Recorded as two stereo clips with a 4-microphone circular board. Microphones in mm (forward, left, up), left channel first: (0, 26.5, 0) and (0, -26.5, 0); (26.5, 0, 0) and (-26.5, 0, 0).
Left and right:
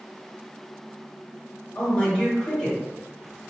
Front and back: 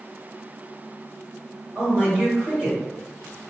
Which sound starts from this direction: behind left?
A man speaking, at 1.8 s.